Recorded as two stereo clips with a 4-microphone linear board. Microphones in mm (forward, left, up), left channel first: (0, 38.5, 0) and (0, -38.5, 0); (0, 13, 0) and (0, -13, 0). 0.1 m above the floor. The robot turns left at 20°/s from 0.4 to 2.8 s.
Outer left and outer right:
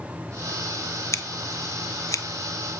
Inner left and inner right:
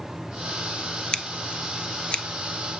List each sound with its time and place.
1.1 s scissors: 40° left (ahead or behind), 0.6 m; by 2.2 s 45° left (ahead or behind), 0.6 m